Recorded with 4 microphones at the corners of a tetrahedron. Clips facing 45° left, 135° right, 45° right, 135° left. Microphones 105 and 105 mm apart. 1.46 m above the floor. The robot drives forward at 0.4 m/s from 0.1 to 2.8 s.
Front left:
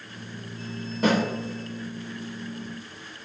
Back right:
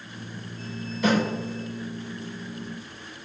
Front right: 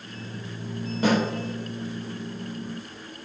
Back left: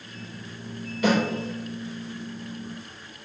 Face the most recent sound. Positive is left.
turn(degrees=10)